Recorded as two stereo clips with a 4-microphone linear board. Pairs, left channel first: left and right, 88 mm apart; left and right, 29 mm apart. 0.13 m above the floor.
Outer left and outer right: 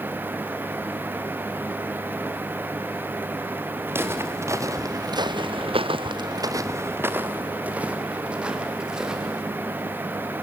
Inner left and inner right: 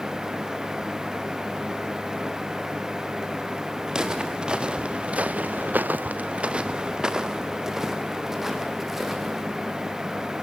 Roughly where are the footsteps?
Right.